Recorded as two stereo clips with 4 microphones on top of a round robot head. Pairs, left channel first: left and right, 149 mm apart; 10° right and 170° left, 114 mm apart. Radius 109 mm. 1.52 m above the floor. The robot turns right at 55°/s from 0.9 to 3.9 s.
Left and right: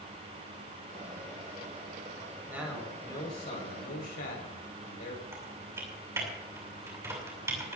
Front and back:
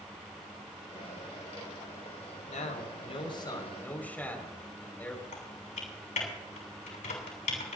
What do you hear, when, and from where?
2.5 s a man speaking: 15° right, 5.5 m; by 5.2 s 65° left, 5.5 m
5.3 s typing on a keyboard: 15° right, 6 m